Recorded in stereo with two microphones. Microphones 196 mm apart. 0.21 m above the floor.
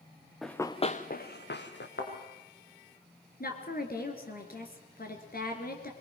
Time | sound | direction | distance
0.4 | running footsteps | centre (ahead or behind) | 1.2 m
2.0 | a thud | 85° left | 5 m
3.4 | a woman speaking | 55° left (ahead or behind) | 3 m